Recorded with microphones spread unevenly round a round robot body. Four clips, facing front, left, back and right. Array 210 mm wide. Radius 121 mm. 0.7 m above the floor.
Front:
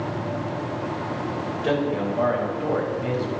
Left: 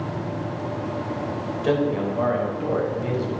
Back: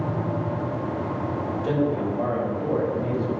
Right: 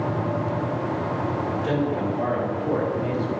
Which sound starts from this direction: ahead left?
A man speaking, at 1.6 s.